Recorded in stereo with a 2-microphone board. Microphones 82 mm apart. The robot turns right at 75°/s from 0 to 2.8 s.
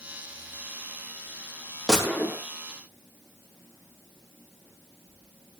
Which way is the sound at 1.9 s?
5° right.